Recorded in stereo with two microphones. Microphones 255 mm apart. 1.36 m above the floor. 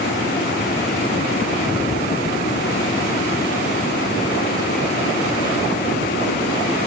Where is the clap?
I don't hear a clap.